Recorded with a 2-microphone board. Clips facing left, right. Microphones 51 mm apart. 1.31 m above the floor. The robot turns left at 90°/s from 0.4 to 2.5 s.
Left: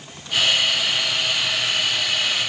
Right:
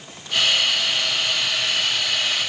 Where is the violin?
I don't hear a violin.